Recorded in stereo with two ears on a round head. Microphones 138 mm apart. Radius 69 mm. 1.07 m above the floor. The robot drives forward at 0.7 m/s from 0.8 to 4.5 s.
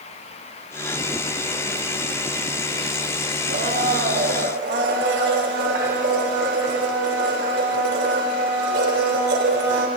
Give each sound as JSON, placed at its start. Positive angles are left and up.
{"t": 3.5, "sound": "a blender", "side_deg": -60, "distance_m": 4.0}